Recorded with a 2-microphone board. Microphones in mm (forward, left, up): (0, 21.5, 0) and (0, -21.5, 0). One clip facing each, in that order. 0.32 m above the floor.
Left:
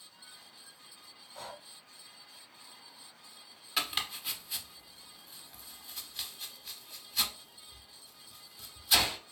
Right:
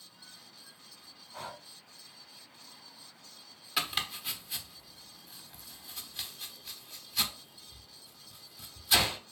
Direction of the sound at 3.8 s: Centre (ahead or behind).